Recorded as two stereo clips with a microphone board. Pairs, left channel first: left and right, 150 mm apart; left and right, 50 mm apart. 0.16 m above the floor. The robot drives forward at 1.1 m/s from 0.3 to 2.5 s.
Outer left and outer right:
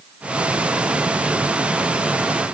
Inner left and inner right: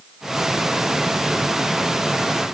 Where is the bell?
I don't hear a bell.